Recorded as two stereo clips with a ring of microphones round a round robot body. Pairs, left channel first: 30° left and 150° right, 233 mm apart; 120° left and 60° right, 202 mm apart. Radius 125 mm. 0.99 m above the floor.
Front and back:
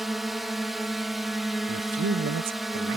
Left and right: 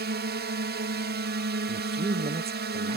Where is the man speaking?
120° right.